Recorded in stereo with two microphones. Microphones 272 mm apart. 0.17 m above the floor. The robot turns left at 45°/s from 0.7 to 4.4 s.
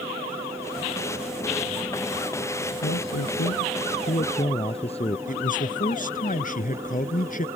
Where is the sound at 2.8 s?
95° left; by 5.2 s 25° left.